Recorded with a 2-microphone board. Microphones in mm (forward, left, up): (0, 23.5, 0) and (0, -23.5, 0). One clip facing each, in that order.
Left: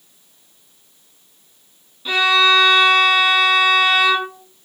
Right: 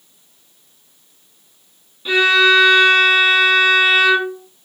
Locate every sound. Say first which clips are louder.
2.0 s a violin: right 2 dB; 5° right (ahead or behind), 1.9 m